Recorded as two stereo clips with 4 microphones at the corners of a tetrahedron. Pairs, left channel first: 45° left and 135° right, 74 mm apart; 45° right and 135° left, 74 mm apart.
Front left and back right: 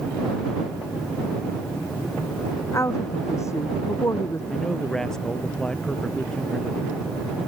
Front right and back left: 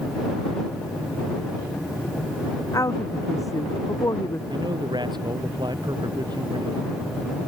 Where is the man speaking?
130° left.